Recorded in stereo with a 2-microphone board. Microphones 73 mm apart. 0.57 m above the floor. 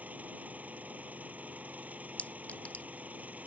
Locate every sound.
0.0 s an engine running: 20° right (ahead or behind)
2.2 s a clink: 20° left (ahead or behind)